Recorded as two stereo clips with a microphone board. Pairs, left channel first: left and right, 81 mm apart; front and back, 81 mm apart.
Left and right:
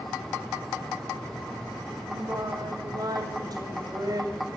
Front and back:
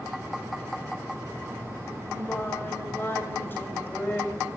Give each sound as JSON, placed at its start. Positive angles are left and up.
{"t": 2.1, "sound": "singing", "azimuth_deg": -60, "distance_m": 2.5}